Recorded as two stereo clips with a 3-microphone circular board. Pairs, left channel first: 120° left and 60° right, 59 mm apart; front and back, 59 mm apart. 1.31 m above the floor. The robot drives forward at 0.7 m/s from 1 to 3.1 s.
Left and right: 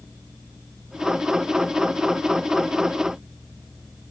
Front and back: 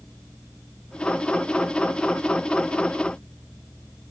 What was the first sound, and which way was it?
Only background noise.